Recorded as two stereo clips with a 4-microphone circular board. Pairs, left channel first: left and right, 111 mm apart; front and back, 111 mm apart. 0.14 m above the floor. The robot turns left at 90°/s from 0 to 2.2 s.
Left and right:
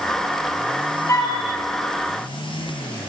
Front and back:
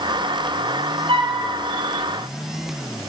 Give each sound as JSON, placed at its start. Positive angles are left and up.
{"t": 1.1, "sound": "a flute", "azimuth_deg": 155, "distance_m": 2.5}